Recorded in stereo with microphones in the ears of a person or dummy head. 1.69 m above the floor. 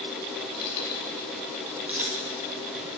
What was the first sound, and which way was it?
Keys jangling, 30° left (ahead or behind).